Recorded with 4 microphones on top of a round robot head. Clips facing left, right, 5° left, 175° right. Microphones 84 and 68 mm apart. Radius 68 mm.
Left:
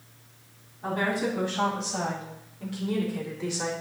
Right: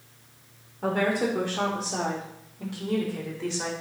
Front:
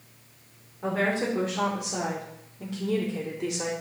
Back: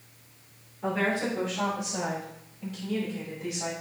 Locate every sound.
0.8 s a woman speaking: 70° right, 3.5 m; by 3.7 s 5° left, 3 m